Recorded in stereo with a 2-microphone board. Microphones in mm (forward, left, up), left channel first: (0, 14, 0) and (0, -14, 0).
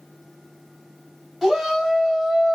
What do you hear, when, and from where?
1.4 s a shout: 5° right (ahead or behind), 2.5 m; by 2.6 s 10° right (ahead or behind), 1.5 m